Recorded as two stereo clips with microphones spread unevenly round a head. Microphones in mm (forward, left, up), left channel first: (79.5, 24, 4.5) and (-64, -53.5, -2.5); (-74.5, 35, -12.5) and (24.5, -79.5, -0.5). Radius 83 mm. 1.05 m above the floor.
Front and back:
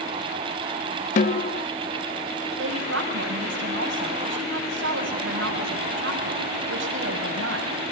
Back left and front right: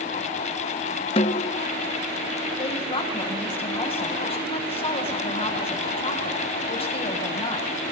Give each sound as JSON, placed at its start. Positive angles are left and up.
{"t": 1.2, "sound": "a snare drum", "azimuth_deg": 70, "distance_m": 0.6}
{"t": 2.6, "sound": "a woman speaking", "azimuth_deg": -175, "distance_m": 7.0}